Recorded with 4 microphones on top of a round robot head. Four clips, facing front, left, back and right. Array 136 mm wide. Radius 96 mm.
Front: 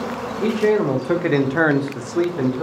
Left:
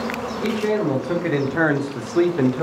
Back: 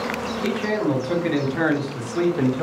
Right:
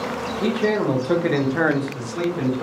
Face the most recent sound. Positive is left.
turn(degrees=105)